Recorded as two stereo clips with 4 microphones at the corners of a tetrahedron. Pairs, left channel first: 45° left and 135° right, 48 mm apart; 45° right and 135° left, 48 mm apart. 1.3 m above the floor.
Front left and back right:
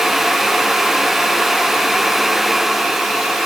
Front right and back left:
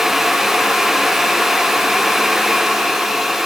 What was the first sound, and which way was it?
Only background noise.